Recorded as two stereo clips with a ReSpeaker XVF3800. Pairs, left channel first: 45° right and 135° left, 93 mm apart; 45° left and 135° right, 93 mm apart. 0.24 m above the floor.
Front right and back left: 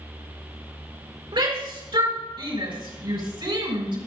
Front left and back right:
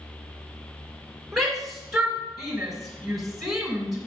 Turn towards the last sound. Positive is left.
turn(degrees=135)